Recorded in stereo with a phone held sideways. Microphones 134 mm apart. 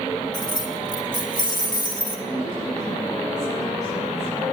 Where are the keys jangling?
30° left (ahead or behind), 1.7 m.